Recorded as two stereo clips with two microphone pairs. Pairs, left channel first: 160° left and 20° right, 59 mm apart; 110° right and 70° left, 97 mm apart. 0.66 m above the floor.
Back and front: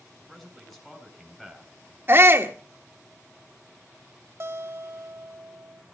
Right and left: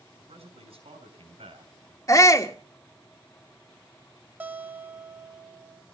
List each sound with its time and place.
0.2 s a man speaking: 75° left, 5.5 m
2.1 s a shout: 65° right, 1.6 m
4.4 s a guitar: straight ahead, 1.1 m